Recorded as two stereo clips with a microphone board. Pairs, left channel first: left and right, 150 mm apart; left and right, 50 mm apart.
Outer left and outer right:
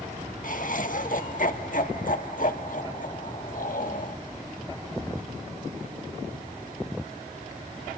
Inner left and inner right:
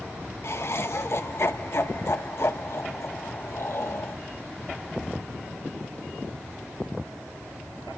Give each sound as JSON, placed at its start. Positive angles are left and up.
{"t": 0.4, "sound": "laughter", "side_deg": 65, "distance_m": 1.7}